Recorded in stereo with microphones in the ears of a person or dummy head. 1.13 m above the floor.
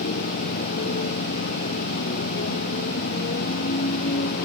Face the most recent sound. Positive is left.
turn(degrees=55)  # may be behind; listen again after turning